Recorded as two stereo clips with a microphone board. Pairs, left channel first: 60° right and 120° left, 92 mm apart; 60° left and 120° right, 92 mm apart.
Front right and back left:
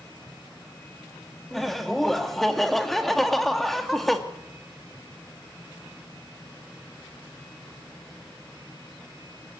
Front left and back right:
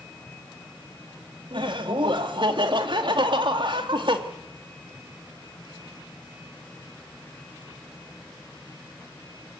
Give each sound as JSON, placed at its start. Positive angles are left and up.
{"t": 1.5, "sound": "laughter", "azimuth_deg": -150, "distance_m": 2.0}